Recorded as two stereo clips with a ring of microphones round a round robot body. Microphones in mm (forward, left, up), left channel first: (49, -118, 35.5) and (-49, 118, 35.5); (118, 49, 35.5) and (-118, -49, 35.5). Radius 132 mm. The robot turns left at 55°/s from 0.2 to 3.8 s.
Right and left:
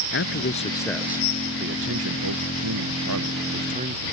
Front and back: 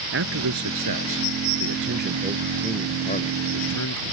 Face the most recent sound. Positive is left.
turn(degrees=50)